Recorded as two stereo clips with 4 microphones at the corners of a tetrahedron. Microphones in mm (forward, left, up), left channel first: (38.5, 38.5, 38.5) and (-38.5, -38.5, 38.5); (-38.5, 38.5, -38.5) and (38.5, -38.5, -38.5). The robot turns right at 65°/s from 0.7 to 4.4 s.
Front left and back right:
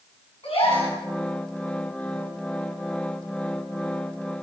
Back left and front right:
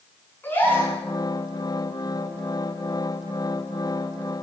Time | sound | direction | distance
0.4 | a gasp | 65° left | 6 m